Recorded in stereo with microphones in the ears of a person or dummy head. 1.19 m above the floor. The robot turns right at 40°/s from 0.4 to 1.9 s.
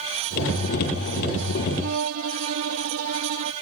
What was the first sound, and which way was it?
A violin, 65° right (ahead or behind).